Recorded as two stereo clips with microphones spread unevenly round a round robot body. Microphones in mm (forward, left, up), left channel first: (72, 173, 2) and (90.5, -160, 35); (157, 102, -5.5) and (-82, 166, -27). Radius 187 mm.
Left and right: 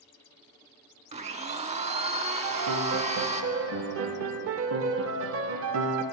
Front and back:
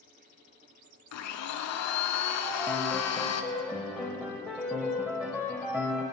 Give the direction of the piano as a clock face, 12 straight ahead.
3 o'clock.